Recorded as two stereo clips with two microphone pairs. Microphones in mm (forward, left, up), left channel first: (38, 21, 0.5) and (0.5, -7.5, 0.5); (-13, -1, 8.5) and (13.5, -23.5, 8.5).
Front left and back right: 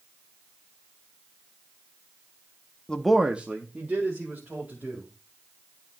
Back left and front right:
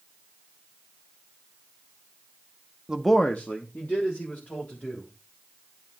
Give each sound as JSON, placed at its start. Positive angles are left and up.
{"t": 2.9, "sound": "a man speaking", "azimuth_deg": -10, "distance_m": 0.5}